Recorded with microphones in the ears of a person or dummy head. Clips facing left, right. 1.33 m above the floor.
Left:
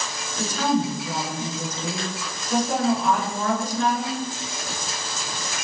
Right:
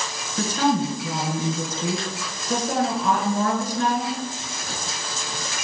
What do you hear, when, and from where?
0.4 s a woman speaking: 45° right (ahead or behind), 1.3 m